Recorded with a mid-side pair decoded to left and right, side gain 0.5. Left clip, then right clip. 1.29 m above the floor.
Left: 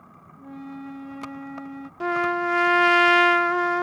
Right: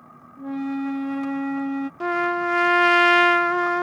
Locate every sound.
0.4 s a flute: 50° right
2.0 s a trumpet: straight ahead